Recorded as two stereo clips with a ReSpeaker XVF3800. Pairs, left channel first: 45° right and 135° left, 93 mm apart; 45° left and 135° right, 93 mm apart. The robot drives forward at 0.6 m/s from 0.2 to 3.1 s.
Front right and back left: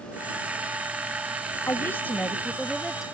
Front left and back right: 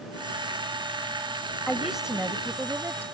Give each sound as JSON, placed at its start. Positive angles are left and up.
{"t": 1.7, "sound": "a woman speaking", "azimuth_deg": -40}